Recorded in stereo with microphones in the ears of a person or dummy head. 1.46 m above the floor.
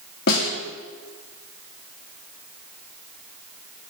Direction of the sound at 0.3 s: 55° left (ahead or behind).